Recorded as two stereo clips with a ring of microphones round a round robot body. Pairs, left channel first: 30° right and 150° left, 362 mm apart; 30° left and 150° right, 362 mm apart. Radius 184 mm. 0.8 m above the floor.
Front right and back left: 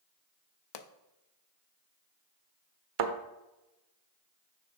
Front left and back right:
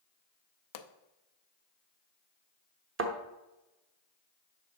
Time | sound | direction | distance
0.7 | a pop | 5° right | 0.6 m
3.0 | a thud | 150° left | 0.8 m